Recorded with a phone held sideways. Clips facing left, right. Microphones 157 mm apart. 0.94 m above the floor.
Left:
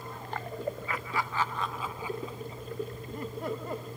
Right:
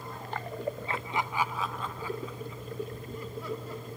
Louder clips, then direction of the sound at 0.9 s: Right 1 dB; 30° right (ahead or behind).